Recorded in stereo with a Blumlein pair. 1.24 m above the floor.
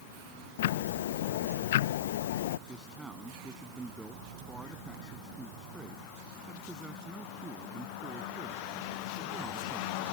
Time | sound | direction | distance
0.6 | ticking | 55° left | ?
2.7 | a man speaking | 10° right | ?